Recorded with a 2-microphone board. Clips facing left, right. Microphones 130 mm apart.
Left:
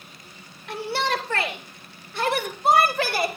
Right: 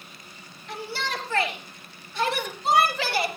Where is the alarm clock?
No alarm clock in this recording.